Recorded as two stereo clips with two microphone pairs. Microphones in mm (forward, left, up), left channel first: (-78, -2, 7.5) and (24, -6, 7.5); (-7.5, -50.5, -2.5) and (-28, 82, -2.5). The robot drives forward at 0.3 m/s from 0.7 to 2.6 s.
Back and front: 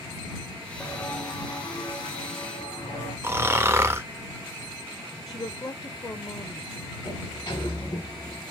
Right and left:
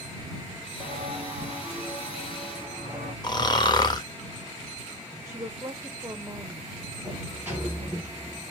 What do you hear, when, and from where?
0.8 s footsteps: 145° left, 1.3 m; by 3.1 s 150° left, 4.5 m
3.2 s snoring: 50° right, 0.6 m
5.3 s a woman speaking: 160° left, 0.6 m
7.0 s a sliding door: 170° left, 2.5 m